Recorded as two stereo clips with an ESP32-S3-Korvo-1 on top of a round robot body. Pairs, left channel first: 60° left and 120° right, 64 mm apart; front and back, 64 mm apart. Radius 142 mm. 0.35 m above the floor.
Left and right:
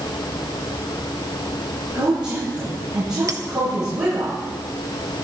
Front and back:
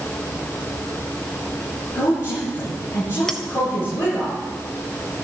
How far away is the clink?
About 1.1 m.